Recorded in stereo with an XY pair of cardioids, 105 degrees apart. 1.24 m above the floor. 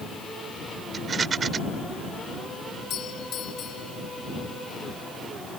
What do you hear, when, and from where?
0.9 s a rattle: 40° right
2.9 s a doorbell: 65° left